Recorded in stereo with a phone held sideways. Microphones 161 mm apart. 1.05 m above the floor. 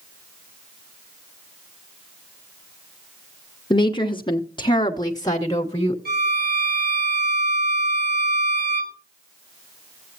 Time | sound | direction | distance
3.7 | a woman speaking | 30° left (ahead or behind) | 0.7 m
6.0 | a violin | 85° right | 3 m